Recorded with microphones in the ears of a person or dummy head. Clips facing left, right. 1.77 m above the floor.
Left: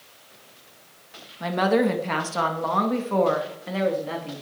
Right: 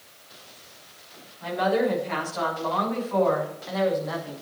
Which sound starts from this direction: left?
A woman speaking, at 1.4 s.